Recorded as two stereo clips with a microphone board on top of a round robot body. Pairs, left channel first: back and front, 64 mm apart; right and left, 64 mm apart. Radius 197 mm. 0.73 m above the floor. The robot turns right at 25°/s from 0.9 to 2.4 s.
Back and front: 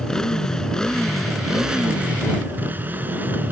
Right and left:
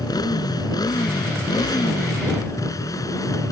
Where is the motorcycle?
100° right; by 3.5 s 60° right.